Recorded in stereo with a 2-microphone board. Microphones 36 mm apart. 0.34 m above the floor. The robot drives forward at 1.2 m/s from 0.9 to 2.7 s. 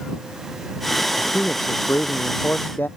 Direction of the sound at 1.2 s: 65° left (ahead or behind).